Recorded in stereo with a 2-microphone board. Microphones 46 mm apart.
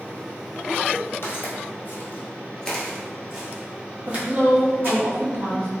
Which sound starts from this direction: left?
Footsteps, at 1.2 s.